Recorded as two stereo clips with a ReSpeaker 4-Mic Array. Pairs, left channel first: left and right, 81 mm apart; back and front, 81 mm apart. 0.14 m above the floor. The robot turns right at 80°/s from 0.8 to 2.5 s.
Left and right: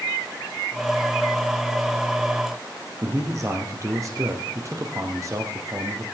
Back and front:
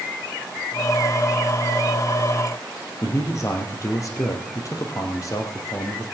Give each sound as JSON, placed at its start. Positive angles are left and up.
{"t": 3.0, "sound": "a man speaking", "azimuth_deg": -135, "distance_m": 3.0}